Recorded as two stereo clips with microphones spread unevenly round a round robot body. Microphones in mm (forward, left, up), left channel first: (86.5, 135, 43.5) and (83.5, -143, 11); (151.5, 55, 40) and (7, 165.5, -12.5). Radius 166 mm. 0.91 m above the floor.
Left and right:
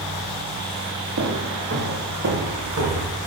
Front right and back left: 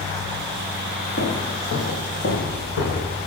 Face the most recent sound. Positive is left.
turn(degrees=-60)